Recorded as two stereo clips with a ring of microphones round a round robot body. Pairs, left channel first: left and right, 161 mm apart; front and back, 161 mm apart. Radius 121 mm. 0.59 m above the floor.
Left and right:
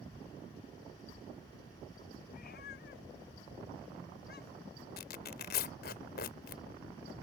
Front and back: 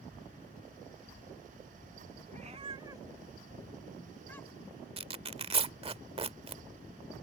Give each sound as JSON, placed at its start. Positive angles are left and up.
{"t": 2.3, "sound": "a cat meowing", "azimuth_deg": 140}
{"t": 5.0, "sound": "tearing paper", "azimuth_deg": 125}